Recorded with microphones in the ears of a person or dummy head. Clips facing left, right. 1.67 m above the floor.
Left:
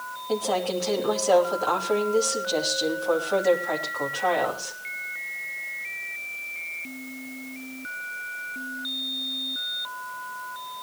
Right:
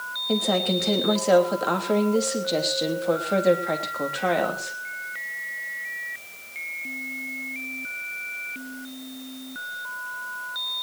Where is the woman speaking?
30° right (ahead or behind), 3 m.